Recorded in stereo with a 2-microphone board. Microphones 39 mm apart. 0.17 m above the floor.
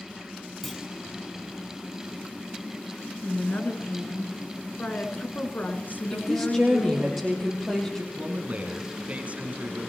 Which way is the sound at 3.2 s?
50° left (ahead or behind).